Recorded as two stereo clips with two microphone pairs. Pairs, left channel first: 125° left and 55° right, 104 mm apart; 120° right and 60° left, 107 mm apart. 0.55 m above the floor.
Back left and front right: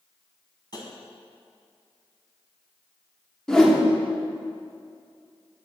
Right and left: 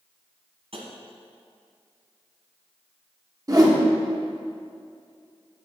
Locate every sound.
0.7 s tapping: 80° left, 1.2 m
3.5 s a whoosh: 45° left, 1.0 m